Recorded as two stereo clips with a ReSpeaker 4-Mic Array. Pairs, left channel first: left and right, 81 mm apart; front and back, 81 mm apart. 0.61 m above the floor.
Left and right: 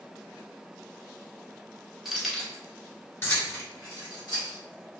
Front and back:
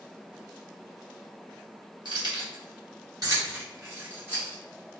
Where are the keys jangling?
175° right, 1.1 m; by 5.0 s 105° left, 1.7 m.